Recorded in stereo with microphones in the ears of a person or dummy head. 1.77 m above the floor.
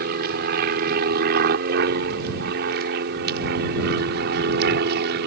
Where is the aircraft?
55° right (ahead or behind); by 5.3 s 60° right (ahead or behind).